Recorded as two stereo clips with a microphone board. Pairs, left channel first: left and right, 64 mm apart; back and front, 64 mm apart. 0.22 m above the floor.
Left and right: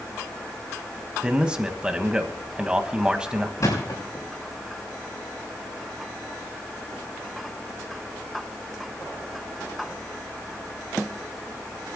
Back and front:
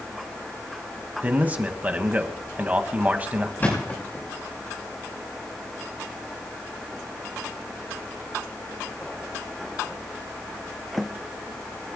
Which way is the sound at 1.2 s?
30° right.